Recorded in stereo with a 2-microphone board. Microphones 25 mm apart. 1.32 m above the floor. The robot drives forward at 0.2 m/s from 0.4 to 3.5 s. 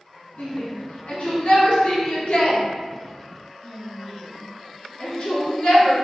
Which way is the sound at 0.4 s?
60° left (ahead or behind).